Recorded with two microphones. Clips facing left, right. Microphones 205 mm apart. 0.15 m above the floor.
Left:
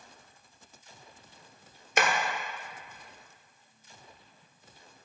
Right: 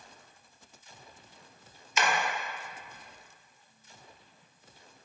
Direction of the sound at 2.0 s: 60° left (ahead or behind).